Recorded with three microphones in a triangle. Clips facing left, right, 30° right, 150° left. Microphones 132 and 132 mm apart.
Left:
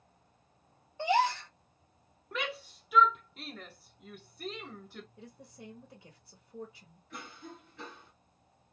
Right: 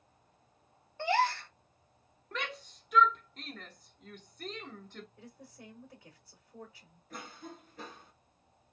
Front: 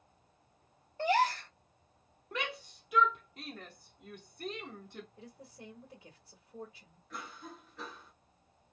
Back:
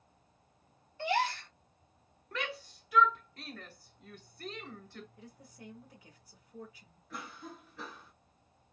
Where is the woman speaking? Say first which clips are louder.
Left 2 dB, front 2 dB; 20° left, 1.5 m.